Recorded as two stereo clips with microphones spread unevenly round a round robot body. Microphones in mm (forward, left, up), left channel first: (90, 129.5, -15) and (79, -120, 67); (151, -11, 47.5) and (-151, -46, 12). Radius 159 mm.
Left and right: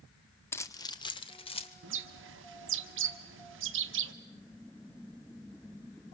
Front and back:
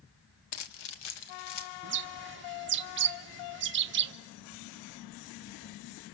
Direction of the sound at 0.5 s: 5° left.